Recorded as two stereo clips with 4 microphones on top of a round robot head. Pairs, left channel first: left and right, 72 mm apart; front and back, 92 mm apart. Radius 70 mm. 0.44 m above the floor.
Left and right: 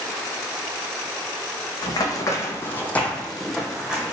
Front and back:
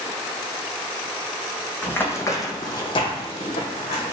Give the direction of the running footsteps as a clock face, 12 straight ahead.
10 o'clock.